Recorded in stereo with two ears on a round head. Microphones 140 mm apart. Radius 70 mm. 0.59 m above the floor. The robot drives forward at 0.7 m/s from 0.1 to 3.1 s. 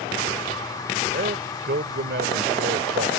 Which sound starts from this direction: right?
A man speaking, at 1.1 s.